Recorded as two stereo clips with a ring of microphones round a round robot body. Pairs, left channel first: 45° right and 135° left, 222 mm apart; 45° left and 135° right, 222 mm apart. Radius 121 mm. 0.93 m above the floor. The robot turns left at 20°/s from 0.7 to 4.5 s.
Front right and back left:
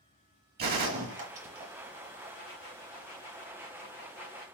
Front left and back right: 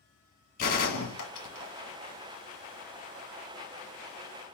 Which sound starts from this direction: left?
A gunshot, at 0.6 s.